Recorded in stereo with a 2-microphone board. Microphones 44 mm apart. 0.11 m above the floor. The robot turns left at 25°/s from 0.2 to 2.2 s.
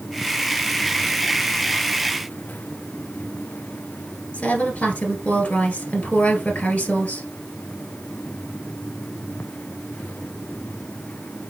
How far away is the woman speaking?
About 1.5 m.